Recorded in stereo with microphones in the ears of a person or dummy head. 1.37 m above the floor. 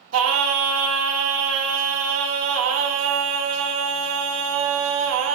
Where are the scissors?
No scissors in this recording.